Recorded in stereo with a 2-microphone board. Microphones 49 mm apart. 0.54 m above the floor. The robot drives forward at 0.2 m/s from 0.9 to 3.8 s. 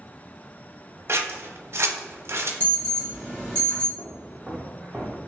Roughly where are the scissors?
Right.